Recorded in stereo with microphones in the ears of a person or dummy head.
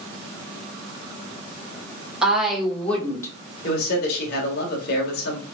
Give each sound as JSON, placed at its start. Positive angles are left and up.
{"t": 2.2, "sound": "a woman speaking", "side_deg": -5, "distance_m": 1.9}
{"t": 3.6, "sound": "a man speaking", "side_deg": 65, "distance_m": 2.0}